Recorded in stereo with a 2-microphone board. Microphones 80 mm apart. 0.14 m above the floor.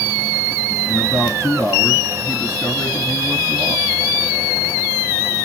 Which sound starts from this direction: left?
A man speaking, at 0.9 s.